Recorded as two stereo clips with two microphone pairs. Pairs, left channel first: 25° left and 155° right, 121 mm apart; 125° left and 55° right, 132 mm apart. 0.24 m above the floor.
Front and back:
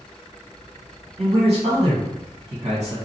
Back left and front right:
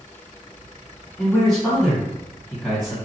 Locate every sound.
1.2 s a man speaking: 145° right, 1.9 m